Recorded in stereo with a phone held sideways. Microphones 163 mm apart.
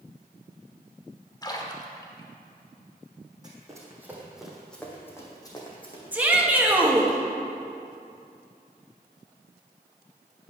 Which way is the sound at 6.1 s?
10° right (ahead or behind).